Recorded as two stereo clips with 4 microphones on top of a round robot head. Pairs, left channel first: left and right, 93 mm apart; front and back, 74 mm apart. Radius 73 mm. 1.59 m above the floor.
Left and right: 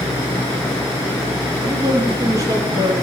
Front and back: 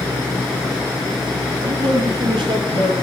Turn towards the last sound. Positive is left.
turn(degrees=-155)